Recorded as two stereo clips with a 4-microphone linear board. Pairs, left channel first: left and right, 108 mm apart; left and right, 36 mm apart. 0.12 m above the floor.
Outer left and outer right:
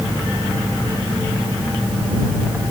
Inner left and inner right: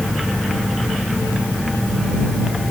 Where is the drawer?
No drawer in this recording.